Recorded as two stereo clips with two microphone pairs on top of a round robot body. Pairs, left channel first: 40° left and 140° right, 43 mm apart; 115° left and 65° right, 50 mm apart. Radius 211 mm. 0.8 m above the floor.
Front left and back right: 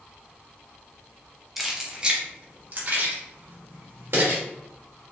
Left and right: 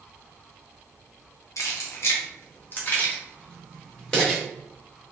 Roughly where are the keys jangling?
Behind left.